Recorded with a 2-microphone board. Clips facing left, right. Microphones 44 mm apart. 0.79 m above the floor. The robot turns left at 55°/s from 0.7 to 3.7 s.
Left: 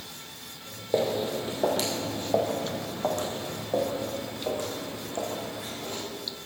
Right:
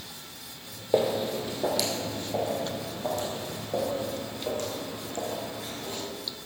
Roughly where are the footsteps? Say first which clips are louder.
Right 1 dB; centre.